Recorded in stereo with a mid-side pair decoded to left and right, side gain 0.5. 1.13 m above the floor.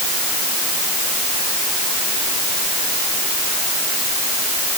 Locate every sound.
Only background noise.